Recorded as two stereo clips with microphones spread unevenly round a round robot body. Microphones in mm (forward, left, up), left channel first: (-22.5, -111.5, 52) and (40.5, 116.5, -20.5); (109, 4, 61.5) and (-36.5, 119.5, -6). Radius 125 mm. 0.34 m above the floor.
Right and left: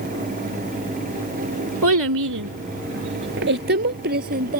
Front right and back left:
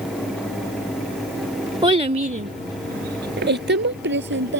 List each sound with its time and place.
1.8 s a child speaking: 80° left; by 4.6 s 130° left